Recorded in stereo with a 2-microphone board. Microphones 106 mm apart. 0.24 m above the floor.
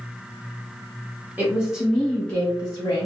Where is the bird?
I don't hear a bird.